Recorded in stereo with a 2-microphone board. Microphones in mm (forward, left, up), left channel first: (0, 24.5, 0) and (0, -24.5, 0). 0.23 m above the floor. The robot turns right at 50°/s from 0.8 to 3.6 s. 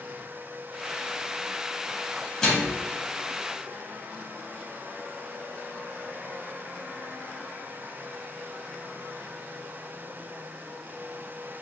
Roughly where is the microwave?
Centre.